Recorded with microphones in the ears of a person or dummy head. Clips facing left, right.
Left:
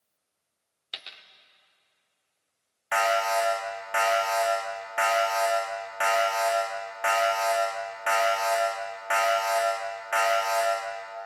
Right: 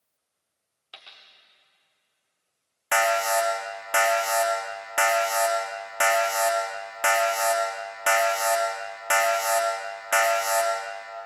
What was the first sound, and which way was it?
A dropped coin, 30° left (ahead or behind).